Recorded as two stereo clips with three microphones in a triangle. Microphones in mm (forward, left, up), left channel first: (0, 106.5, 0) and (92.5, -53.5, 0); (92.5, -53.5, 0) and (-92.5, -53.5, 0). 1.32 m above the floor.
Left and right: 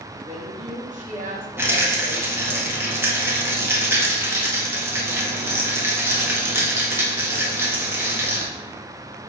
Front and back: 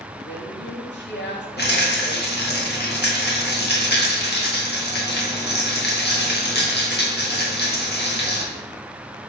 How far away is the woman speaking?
About 2.0 m.